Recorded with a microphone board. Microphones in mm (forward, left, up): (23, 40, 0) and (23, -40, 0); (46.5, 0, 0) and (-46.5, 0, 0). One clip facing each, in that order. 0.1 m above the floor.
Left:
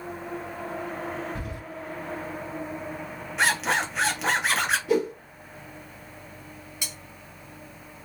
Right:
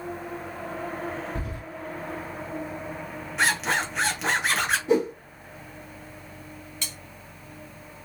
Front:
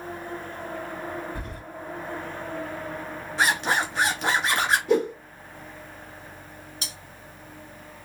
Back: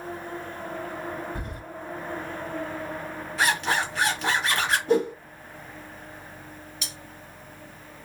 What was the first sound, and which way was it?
Keys jangling, 115° right.